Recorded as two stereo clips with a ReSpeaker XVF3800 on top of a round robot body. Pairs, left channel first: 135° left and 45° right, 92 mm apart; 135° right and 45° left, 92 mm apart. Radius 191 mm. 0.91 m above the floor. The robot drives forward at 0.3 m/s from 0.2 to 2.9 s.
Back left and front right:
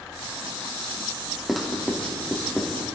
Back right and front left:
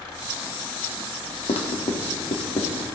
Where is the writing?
135° right, 1.5 m; by 2.8 s 145° right, 1.8 m.